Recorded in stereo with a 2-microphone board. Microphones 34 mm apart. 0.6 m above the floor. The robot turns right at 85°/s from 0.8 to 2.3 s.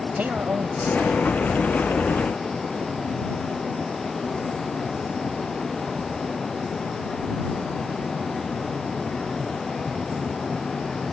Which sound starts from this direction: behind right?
A man speaking, at 0.2 s.